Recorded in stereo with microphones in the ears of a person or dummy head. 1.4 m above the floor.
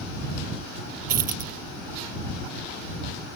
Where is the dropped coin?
50° right (ahead or behind).